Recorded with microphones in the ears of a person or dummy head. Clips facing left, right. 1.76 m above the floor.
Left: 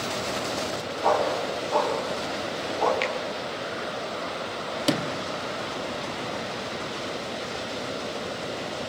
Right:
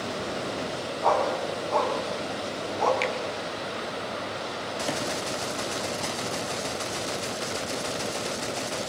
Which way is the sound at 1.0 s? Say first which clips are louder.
Left 1 dB; centre (ahead or behind).